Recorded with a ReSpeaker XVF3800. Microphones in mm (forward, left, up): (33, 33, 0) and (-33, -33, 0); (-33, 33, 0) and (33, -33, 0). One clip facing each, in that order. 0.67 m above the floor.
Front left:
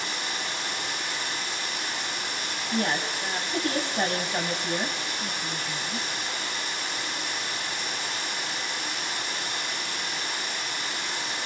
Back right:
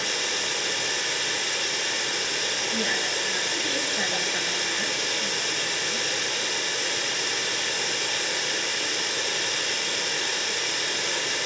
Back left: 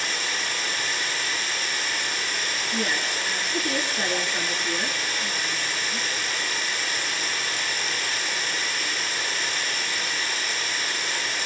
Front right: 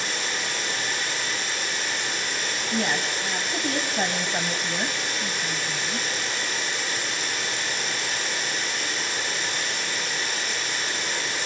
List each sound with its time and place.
0.0 s running water: 115° right, 8 m
2.7 s a woman speaking: 5° right, 4 m